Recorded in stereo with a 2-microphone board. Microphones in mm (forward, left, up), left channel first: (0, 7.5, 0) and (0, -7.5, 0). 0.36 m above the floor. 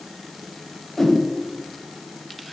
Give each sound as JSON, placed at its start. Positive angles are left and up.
{"t": 1.0, "sound": "a whoosh", "side_deg": 20, "distance_m": 1.0}